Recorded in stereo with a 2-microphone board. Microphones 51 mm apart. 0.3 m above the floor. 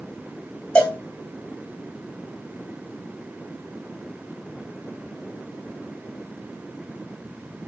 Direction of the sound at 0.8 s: 20° left (ahead or behind).